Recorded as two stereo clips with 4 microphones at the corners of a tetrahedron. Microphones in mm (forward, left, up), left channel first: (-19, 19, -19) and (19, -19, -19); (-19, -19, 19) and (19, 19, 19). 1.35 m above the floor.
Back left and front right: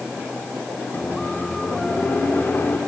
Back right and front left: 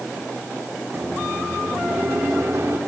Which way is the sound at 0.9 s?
85° left.